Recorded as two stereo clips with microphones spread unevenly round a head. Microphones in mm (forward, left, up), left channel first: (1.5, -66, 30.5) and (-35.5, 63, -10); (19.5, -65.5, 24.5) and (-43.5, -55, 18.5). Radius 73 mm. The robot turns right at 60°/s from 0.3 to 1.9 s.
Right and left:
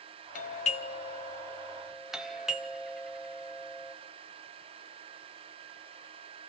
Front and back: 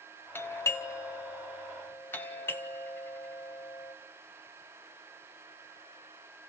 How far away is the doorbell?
About 1.0 m.